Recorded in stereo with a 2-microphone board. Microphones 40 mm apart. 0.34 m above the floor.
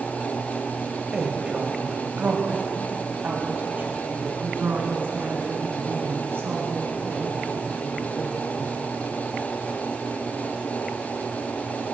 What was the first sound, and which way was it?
A woman speaking, 15° right (ahead or behind).